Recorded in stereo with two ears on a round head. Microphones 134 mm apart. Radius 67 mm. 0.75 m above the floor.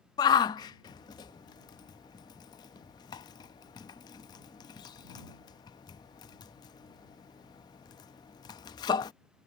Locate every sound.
0.2 s a shout: 25° left (ahead or behind)